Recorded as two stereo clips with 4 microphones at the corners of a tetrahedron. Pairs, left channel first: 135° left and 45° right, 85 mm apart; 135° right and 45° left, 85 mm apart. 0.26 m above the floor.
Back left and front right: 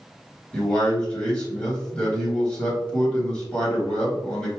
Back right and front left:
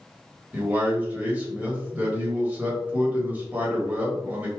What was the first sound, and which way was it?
A man speaking, 80° left.